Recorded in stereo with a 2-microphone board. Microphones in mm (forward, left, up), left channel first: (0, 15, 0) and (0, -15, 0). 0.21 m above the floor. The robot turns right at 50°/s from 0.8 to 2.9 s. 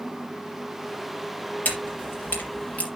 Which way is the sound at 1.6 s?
70° left (ahead or behind).